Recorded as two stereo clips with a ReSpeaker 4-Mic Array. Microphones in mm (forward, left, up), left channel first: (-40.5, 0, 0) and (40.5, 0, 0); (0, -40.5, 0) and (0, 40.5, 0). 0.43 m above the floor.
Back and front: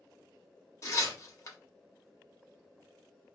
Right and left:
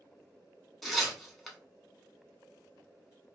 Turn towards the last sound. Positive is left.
turn(degrees=-175)